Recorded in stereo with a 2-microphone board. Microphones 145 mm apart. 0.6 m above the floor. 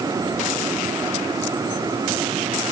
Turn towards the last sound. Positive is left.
No sound to turn to.